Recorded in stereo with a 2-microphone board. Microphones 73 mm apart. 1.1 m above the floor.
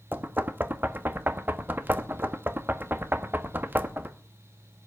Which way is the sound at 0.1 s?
30° right (ahead or behind).